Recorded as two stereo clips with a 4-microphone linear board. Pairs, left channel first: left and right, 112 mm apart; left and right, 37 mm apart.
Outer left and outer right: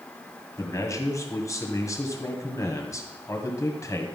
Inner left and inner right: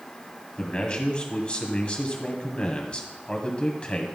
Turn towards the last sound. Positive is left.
turn(degrees=30)  # may be behind; listen again after turning